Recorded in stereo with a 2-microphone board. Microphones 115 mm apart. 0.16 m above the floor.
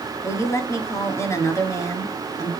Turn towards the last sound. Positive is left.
turn(degrees=30)  # may be behind; listen again after turning